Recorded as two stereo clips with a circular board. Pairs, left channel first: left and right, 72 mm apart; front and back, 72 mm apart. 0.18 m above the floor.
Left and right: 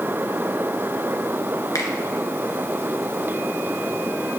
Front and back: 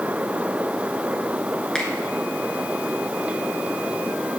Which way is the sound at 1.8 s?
75° left.